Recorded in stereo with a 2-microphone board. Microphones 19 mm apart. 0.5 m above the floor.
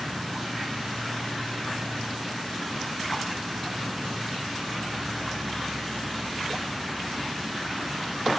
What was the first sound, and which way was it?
An insect, 50° right (ahead or behind).